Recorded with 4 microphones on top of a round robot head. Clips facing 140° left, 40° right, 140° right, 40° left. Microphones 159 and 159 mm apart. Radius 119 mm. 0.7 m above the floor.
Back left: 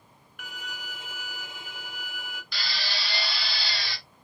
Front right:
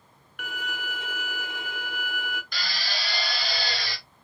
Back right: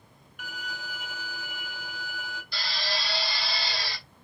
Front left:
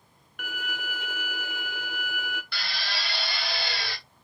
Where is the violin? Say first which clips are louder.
Front right 7 dB, front left 3 dB; straight ahead, 0.7 m.